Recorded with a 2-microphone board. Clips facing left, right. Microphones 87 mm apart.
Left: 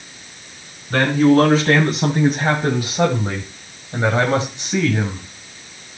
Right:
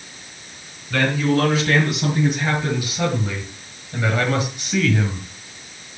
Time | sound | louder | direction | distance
0.9 | a man speaking | left 6 dB | 35° left (ahead or behind) | 3 m